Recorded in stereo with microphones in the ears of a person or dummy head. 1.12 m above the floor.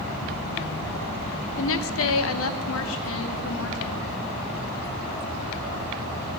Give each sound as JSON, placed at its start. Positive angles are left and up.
{"t": 1.6, "sound": "a woman speaking", "side_deg": 60, "distance_m": 1.0}